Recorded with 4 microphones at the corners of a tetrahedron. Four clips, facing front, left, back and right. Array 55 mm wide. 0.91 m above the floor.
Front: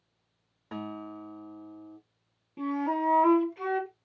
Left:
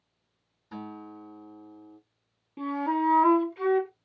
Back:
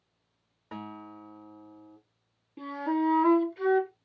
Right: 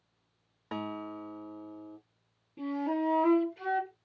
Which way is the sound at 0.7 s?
95° right.